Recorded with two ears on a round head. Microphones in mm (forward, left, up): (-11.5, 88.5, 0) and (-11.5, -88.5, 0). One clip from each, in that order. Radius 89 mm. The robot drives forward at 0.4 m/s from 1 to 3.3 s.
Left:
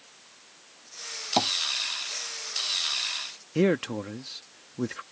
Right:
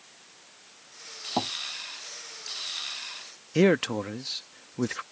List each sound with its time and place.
1.4 s tapping: 70° left (ahead or behind)
3.5 s a man speaking: 25° right (ahead or behind)